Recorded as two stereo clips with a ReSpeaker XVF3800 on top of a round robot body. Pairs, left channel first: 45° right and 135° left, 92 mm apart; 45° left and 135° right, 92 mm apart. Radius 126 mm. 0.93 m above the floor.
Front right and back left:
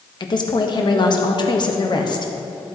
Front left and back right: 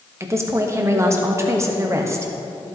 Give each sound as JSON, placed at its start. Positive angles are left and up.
{"t": 0.2, "sound": "a woman speaking", "azimuth_deg": -75, "distance_m": 1.5}